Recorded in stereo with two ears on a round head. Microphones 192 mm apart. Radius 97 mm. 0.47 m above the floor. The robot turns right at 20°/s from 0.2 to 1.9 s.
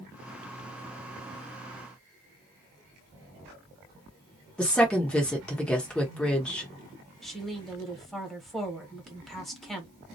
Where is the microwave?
No microwave in this recording.